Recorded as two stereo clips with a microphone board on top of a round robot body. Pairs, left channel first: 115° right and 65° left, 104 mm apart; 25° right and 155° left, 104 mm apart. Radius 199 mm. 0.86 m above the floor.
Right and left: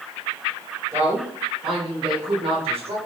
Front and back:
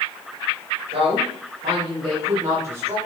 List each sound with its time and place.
0.9 s a woman speaking: 125° left, 5 m; by 3.0 s 90° left, 4.5 m